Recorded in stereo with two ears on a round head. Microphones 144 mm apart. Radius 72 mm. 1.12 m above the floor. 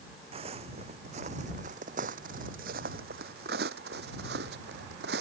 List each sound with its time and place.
0.3 s footsteps: 35° right (ahead or behind); by 5.2 s 75° right (ahead or behind)